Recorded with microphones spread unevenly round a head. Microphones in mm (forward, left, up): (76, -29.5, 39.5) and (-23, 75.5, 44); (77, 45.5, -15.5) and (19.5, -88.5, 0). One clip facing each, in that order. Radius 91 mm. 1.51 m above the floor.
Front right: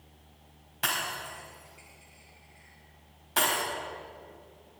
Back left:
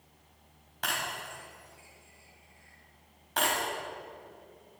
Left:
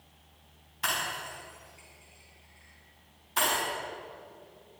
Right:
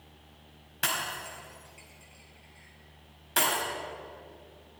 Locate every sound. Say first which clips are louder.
0.8 s breaking glass: front right 1 dB, even; 130° right, 4.5 m